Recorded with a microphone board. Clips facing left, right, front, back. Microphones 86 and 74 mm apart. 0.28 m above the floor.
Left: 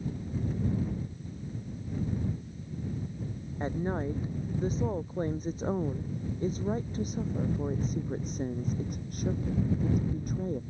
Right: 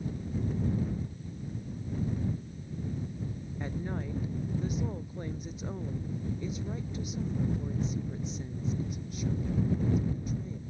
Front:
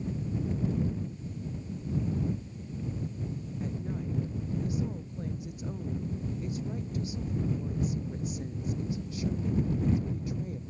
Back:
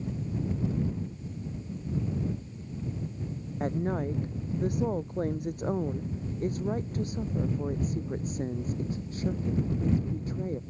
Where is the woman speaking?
145° left; by 10.6 s 130° left.